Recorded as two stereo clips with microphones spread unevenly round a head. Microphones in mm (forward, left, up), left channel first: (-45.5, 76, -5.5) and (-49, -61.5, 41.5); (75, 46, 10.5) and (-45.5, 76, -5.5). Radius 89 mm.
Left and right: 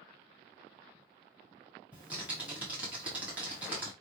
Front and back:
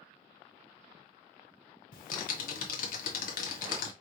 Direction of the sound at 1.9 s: 15° right.